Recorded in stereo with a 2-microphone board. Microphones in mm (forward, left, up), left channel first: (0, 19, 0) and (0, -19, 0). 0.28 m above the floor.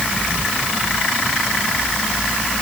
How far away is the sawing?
No sawing in this recording.